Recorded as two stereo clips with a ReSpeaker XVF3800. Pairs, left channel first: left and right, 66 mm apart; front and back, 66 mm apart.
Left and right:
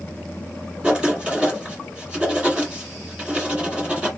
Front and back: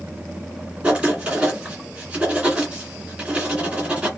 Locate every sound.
0.8 s writing: 140° right, 1.8 m